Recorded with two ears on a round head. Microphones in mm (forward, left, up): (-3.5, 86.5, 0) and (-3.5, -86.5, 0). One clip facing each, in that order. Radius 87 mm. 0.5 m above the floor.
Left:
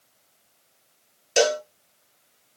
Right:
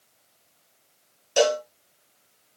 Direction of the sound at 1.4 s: 25° left (ahead or behind).